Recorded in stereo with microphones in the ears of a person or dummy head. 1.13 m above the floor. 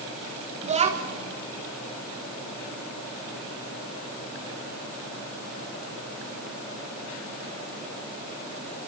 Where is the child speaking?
30° right (ahead or behind), 1.9 m.